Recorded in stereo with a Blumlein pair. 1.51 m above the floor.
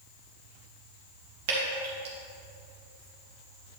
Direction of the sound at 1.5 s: 55° right.